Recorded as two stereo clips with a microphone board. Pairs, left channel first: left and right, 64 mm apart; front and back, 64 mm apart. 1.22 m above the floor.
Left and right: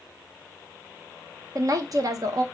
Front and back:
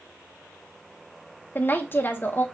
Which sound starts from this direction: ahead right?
A woman speaking, at 1.6 s.